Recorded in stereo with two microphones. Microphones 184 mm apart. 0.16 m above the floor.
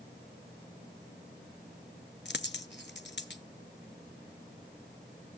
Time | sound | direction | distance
2.2 | a dropped coin | 70° left (ahead or behind) | 0.6 m